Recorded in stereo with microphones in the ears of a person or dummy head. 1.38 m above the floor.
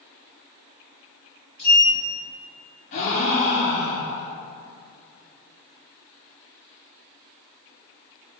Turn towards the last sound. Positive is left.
turn(degrees=30)  # may be behind; listen again after turning